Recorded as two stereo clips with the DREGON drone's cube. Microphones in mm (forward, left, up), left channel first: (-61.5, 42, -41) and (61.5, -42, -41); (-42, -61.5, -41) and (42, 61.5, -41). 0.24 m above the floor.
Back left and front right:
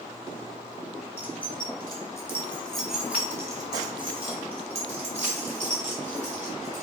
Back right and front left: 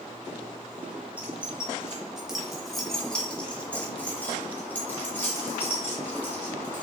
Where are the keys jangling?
130° left, 1.2 m; by 6.8 s 50° right, 2.5 m.